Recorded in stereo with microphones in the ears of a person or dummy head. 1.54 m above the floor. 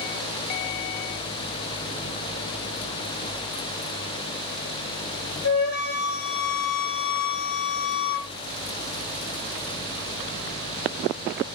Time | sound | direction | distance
5.4 | a flute | 90° left | 3.5 m